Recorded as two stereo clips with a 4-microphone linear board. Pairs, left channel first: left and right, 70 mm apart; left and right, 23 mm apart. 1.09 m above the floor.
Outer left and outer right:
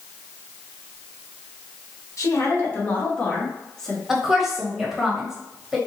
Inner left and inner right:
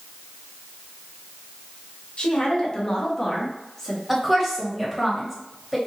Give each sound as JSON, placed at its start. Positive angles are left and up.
{"t": 2.2, "sound": "a woman speaking", "side_deg": 50, "distance_m": 1.1}
{"t": 4.1, "sound": "a woman speaking", "side_deg": -5, "distance_m": 1.2}